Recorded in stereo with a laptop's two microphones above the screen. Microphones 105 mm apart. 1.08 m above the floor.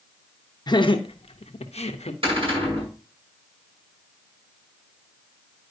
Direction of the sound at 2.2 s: 55° right (ahead or behind).